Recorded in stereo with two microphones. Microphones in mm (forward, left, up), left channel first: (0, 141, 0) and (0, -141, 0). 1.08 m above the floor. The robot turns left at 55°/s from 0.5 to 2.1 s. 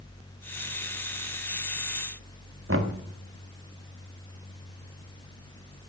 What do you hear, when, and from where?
2.7 s knocking: 50° right (ahead or behind), 1.6 m